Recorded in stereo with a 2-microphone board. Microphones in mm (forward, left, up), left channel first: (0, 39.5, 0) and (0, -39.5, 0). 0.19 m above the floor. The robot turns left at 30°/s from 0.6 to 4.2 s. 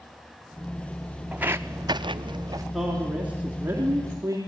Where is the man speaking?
Straight ahead, 2.5 m; by 4.4 s 45° right, 2.5 m.